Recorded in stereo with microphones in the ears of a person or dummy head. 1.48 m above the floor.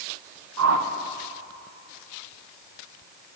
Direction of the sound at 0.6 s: 80° right.